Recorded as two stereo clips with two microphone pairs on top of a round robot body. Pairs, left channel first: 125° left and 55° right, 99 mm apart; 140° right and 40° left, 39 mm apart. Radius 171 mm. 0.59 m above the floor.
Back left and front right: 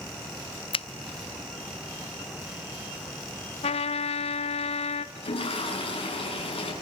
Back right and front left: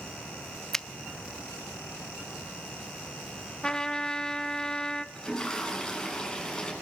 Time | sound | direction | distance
0.7 | a finger snap | 150° left | 0.6 m
3.6 | a trumpet | 145° left | 0.5 m
5.2 | a toilet flushing | 145° left | 8.5 m